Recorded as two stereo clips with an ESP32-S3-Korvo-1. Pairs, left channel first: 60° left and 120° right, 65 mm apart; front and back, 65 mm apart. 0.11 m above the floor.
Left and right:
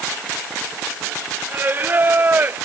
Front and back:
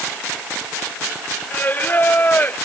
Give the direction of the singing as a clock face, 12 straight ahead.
2 o'clock.